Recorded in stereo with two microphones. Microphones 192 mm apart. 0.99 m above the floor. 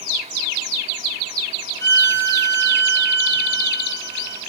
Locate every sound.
1.8 s a violin: 70° right (ahead or behind), 4 m